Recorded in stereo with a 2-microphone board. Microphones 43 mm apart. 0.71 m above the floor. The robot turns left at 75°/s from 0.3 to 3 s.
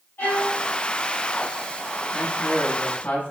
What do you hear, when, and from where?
0.2 s a violin: 60° left (ahead or behind), 1.8 m
2.1 s a man speaking: 135° left, 1.3 m; by 3.3 s 70° left, 1.3 m